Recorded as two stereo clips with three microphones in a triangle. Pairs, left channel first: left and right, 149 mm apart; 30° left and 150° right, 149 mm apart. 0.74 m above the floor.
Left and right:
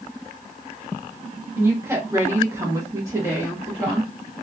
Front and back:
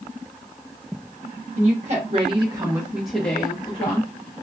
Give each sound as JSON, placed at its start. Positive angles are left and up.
{"t": 1.6, "sound": "a woman speaking", "azimuth_deg": -160, "distance_m": 1.3}